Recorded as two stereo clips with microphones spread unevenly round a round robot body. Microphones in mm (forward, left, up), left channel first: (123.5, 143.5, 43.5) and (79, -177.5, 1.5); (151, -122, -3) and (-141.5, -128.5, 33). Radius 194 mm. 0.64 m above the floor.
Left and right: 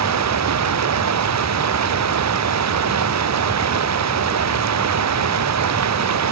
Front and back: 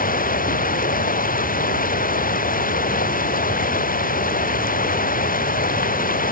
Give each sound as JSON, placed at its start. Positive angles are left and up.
{"t": 0.0, "sound": "running water", "azimuth_deg": -60}